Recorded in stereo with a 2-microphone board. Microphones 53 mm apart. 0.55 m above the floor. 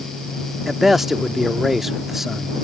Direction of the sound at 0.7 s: 5° right (ahead or behind).